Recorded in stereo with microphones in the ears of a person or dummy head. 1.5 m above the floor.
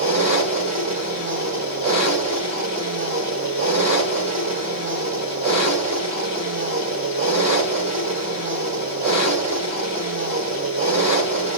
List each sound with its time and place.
0.0 s an engine running: 30° right (ahead or behind), 1.9 m